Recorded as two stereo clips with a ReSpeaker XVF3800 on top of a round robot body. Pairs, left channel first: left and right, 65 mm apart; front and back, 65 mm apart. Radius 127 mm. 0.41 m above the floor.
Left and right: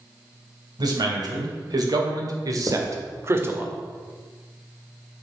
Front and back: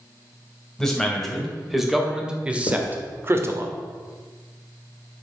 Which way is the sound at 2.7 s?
20° right.